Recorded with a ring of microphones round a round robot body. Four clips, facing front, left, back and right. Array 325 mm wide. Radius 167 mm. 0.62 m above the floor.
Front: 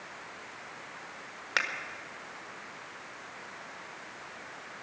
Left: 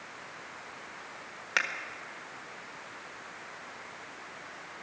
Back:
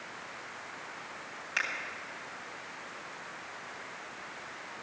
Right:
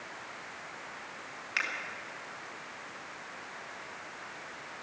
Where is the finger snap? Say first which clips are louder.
Left 5 dB, front 3 dB; 40° left, 1.6 m.